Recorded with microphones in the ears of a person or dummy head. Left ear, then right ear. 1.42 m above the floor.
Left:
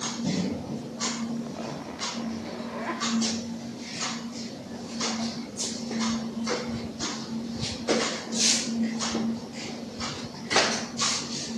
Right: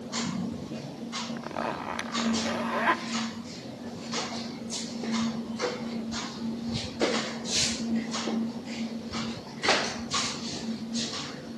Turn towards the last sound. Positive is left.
turn(degrees=-50)  # may be behind; listen again after turning